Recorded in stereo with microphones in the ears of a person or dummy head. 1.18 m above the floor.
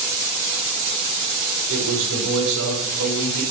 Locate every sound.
1.7 s a man speaking: 65° right (ahead or behind), 3.5 m; by 3.4 s 90° right, 3.5 m